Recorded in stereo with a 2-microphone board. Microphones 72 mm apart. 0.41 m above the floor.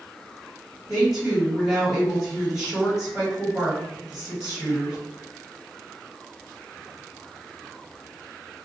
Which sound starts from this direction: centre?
A woman speaking, at 0.9 s.